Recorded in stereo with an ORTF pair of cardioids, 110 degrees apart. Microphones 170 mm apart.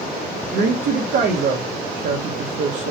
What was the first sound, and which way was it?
A woman speaking, 55° right.